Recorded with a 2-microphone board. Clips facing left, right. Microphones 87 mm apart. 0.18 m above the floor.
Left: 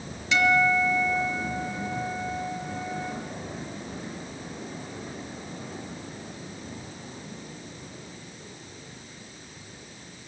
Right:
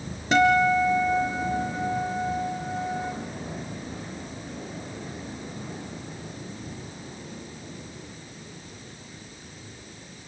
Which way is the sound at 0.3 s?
40° right (ahead or behind).